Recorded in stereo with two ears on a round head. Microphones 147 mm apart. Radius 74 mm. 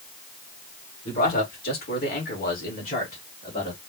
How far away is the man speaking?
About 2.5 m.